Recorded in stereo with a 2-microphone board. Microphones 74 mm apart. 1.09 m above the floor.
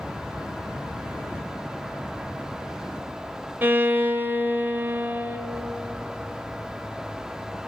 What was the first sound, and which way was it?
A violin, 25° right (ahead or behind).